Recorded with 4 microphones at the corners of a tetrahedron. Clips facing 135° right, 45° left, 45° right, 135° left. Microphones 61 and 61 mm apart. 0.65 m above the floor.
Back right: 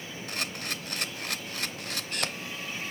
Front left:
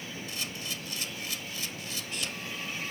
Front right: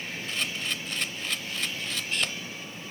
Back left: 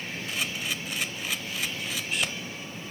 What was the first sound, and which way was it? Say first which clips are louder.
A camera shutter: back right 7 dB, even; 140° right.